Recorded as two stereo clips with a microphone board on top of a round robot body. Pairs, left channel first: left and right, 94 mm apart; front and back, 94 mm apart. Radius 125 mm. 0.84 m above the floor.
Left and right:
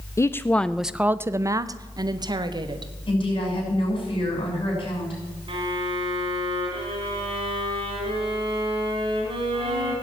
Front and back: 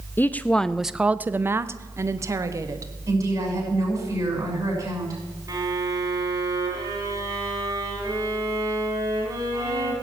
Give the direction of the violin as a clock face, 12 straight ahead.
4 o'clock.